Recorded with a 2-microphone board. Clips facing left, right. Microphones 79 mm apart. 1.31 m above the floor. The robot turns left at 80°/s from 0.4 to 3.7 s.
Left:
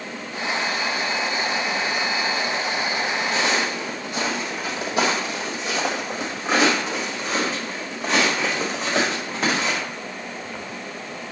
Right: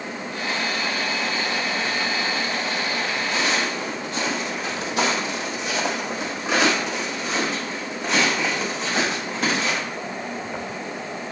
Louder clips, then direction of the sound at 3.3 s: Even; 40° left (ahead or behind).